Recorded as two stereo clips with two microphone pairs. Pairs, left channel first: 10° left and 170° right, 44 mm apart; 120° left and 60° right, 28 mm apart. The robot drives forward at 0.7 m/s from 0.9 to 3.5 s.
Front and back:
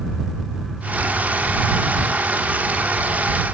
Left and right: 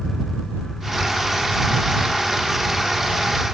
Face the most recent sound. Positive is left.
No sound to turn to.